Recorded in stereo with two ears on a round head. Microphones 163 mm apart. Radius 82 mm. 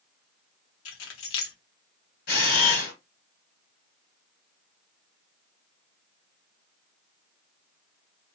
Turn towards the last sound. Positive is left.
turn(degrees=55)  # may be behind; listen again after turning